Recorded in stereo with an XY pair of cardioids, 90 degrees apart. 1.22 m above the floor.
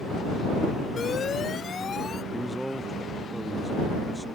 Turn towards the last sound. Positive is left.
turn(degrees=-5)